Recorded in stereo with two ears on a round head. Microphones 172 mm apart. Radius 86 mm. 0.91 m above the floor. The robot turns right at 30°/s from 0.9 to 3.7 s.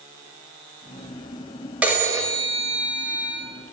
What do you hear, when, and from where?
1.8 s a phone ringing: 170° right, 2 m; by 3.4 s 125° right, 2 m